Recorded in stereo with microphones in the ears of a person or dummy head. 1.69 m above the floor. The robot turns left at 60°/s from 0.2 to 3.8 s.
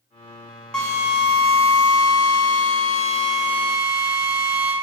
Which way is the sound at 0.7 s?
Straight behind.